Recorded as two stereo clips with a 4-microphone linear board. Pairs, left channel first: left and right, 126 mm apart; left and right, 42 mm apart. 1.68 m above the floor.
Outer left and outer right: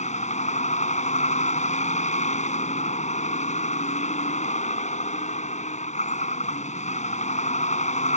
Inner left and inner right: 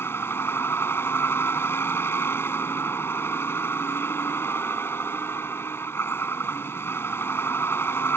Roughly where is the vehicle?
Left.